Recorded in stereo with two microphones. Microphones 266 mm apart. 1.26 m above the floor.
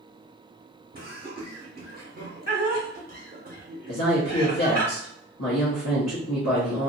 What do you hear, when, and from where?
0.9 s laughter: 35° right (ahead or behind), 0.7 m
3.9 s a woman speaking: 70° left (ahead or behind), 0.9 m